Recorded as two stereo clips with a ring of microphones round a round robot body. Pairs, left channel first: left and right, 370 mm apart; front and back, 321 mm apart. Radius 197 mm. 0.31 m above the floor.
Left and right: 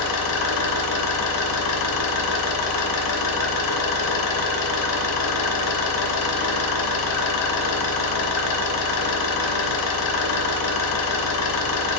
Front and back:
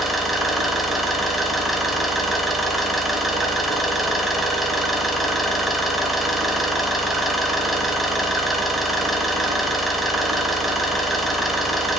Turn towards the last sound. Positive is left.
turn(degrees=90)